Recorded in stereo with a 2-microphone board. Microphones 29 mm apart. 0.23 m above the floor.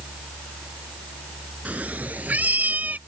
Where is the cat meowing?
70° right (ahead or behind); by 3.0 s 80° right.